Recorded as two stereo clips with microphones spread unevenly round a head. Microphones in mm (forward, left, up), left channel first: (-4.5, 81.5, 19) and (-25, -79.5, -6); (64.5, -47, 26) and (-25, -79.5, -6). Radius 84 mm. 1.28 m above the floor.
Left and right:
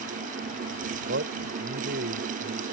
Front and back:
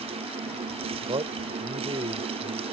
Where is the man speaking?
120° right.